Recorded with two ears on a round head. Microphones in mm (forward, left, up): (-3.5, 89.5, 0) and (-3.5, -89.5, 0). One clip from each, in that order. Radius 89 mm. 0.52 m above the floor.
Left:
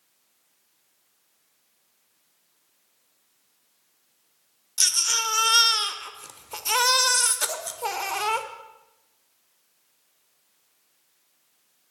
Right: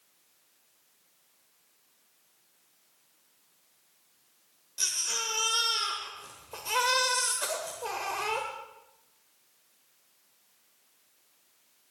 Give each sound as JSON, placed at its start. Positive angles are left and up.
{"t": 4.8, "sound": "a baby crying", "side_deg": 50, "distance_m": 0.9}